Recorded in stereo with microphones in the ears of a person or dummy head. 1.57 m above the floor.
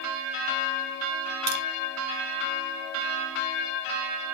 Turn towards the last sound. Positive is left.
turn(degrees=-55)  # may be behind; listen again after turning